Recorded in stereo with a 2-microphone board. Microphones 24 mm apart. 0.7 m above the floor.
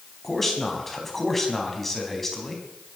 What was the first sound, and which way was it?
A man speaking, 10° left (ahead or behind).